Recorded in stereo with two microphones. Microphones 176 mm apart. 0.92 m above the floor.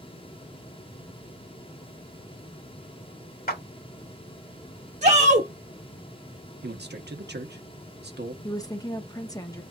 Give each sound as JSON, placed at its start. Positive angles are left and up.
{"t": 3.5, "sound": "a clap", "side_deg": 60, "distance_m": 1.7}
{"t": 5.0, "sound": "a shout", "side_deg": -40, "distance_m": 0.9}
{"t": 6.6, "sound": "a man speaking", "side_deg": -75, "distance_m": 0.9}
{"t": 8.4, "sound": "a woman speaking", "side_deg": 20, "distance_m": 0.7}